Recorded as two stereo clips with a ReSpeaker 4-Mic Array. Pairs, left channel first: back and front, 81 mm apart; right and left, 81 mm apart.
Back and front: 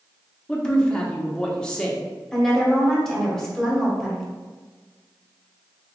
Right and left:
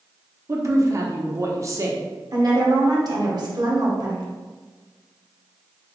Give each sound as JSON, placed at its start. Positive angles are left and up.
{"t": 0.5, "sound": "a woman speaking", "azimuth_deg": 105, "distance_m": 0.8}
{"t": 2.3, "sound": "a woman speaking", "azimuth_deg": 95, "distance_m": 1.2}